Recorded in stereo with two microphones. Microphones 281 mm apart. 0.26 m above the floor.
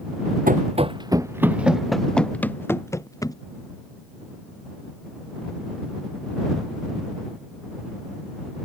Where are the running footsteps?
30° right (ahead or behind); by 3.4 s 15° left (ahead or behind).